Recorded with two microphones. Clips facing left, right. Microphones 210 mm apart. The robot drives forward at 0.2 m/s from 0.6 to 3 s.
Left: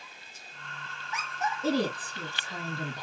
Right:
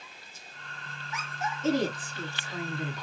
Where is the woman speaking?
35° left (ahead or behind), 1.2 m; by 3.0 s 30° left (ahead or behind), 1.3 m.